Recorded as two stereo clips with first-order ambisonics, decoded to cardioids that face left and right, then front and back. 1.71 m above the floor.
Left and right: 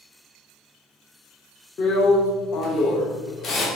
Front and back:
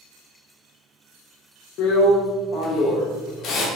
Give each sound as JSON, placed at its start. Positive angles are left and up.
{"t": 1.8, "sound": "a drill", "azimuth_deg": 35, "distance_m": 0.7}